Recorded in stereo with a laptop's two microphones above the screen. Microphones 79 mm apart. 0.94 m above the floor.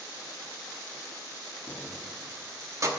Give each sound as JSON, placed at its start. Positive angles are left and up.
{"t": 1.7, "sound": "keys jangling", "side_deg": 15, "distance_m": 0.6}